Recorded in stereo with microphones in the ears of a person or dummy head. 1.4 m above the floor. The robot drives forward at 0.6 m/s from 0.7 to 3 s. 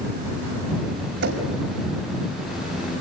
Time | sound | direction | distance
1.2 | knocking | 65° right (ahead or behind) | 5.5 m